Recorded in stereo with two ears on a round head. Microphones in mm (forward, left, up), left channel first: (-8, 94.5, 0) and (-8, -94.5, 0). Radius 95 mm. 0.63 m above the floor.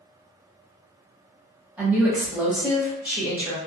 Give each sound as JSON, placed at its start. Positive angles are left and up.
{"t": 1.8, "sound": "a woman speaking", "side_deg": -5, "distance_m": 1.0}